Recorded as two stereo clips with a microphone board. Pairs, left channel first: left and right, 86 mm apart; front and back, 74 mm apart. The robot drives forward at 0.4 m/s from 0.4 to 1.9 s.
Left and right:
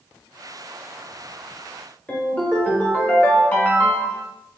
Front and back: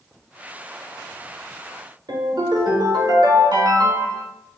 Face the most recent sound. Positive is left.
turn(degrees=165)